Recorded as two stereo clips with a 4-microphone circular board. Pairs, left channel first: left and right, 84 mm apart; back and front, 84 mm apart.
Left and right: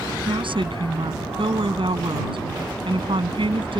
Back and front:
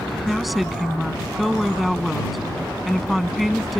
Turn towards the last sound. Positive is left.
turn(degrees=-90)